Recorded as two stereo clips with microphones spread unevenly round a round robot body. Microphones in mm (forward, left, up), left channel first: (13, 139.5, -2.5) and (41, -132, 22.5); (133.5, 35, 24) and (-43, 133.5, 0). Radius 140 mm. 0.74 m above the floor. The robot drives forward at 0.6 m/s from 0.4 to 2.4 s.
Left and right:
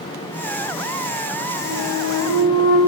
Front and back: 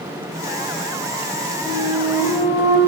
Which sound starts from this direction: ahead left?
A flute, at 1.6 s.